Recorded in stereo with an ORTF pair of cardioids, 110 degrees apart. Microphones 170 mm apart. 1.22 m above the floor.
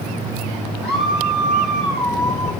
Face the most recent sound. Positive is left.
turn(degrees=65)